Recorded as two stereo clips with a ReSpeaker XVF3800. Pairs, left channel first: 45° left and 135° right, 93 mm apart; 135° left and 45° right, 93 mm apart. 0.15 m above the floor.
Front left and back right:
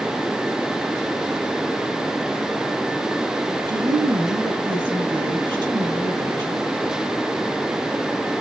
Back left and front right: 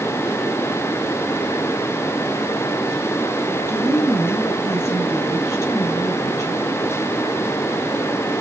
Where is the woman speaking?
165° right, 3.5 m.